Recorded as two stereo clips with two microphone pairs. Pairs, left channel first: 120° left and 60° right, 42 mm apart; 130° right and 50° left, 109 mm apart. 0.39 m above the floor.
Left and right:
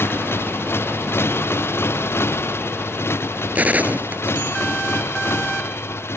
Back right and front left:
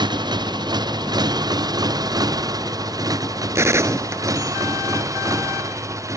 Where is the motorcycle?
100° left; by 6.2 s 115° left.